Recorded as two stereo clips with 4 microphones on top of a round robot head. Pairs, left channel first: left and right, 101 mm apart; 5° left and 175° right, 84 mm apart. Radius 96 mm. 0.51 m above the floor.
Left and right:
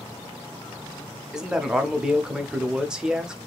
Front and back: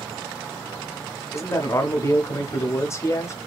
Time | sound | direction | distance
1.3 | a man speaking | 10° right | 0.8 m